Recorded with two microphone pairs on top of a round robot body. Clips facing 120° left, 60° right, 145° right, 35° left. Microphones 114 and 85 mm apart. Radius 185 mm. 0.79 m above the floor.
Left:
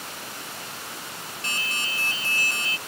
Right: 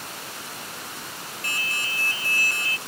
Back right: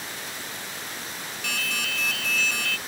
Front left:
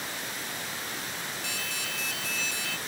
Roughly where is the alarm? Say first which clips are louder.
Even, back right 5 dB; behind.